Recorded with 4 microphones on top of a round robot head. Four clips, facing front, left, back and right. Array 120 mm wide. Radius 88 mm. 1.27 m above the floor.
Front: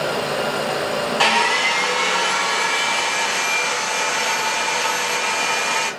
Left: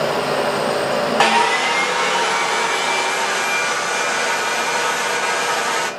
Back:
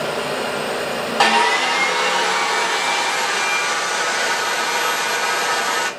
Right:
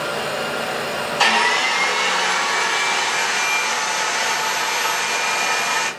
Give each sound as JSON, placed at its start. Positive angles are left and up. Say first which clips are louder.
{"t": 1.2, "sound": "sawing", "louder": "left 1 dB, back 4 dB", "azimuth_deg": 115, "distance_m": 1.2}